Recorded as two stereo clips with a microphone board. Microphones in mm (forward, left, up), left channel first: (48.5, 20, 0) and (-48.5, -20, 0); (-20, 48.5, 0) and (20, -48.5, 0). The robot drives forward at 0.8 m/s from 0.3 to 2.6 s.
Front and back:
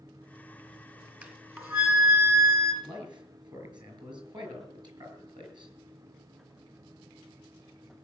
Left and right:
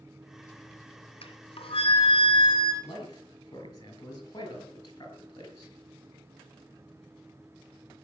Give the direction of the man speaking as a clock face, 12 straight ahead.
7 o'clock.